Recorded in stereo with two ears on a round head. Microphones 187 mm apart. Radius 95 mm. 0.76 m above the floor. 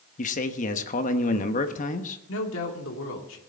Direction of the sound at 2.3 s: 65° left (ahead or behind).